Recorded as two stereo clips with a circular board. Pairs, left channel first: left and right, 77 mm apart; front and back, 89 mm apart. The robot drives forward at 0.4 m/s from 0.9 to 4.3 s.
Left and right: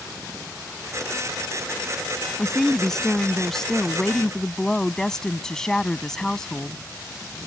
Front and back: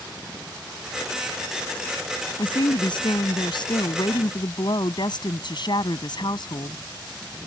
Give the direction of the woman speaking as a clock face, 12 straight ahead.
12 o'clock.